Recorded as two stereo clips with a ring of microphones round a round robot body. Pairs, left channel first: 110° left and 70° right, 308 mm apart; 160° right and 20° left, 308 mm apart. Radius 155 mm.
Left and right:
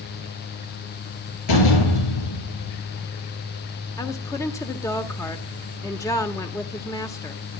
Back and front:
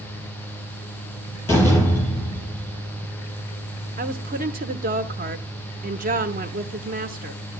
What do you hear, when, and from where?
1.5 s a door slam: 120° left, 10 m
4.0 s a woman speaking: 45° left, 1.2 m